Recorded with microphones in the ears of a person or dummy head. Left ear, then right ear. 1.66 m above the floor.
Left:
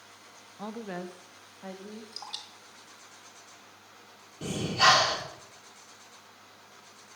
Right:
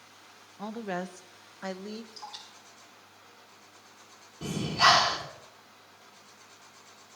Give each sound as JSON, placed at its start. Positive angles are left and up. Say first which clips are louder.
{"t": 0.6, "sound": "a woman speaking", "louder": "right 3 dB", "side_deg": 5, "distance_m": 0.5}
{"t": 2.1, "sound": "dripping", "louder": "left 3 dB", "side_deg": 30, "distance_m": 2.5}
{"t": 4.4, "sound": "breathing", "louder": "even", "side_deg": 5, "distance_m": 2.0}